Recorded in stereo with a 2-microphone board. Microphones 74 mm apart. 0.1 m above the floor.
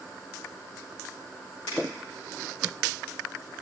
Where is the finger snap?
65° left (ahead or behind), 5.5 m.